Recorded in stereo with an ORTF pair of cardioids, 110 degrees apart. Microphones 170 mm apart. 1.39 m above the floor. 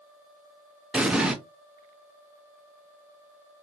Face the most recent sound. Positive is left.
turn(degrees=-5)